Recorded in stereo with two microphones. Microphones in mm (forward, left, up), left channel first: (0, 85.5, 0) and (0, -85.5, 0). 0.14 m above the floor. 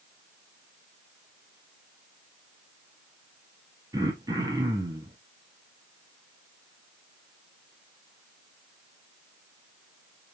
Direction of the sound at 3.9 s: 20° right (ahead or behind).